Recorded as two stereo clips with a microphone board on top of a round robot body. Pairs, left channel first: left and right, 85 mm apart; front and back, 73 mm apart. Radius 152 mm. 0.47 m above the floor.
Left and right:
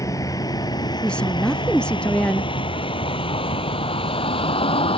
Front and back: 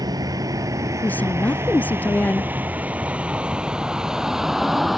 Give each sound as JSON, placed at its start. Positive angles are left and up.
{"t": 0.0, "sound": "a vehicle", "azimuth_deg": 145}
{"t": 1.0, "sound": "a woman speaking", "azimuth_deg": 25}